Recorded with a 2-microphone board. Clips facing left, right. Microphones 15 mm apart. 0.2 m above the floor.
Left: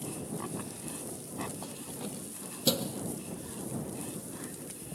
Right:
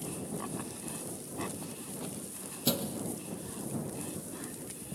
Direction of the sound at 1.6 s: 35° left (ahead or behind).